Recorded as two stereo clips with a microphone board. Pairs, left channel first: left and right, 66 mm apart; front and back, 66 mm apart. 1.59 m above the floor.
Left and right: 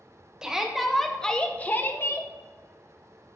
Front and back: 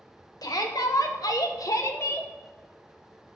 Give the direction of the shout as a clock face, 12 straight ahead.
12 o'clock.